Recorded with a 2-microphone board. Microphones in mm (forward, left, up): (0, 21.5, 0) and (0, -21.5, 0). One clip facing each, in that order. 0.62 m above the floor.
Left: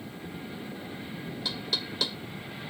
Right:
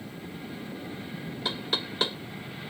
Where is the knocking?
40° right (ahead or behind).